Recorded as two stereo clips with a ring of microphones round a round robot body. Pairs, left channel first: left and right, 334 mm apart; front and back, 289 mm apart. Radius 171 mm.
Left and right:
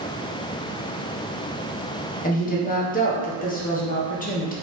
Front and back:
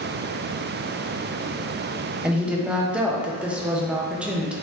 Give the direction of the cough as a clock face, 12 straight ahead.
I don't hear a cough.